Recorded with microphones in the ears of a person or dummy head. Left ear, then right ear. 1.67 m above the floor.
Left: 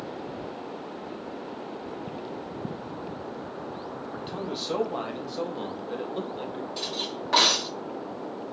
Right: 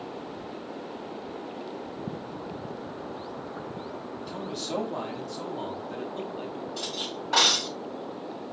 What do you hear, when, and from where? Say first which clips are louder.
4.2 s a man speaking: left 2 dB; 50° left (ahead or behind), 4 m; by 6.7 s 35° left (ahead or behind), 3 m
6.8 s cutlery clinking: left 2 dB; 25° left (ahead or behind), 6 m